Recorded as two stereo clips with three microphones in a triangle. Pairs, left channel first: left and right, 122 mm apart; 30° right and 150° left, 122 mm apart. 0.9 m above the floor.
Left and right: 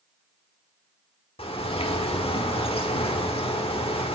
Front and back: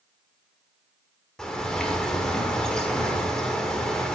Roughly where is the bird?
Ahead left.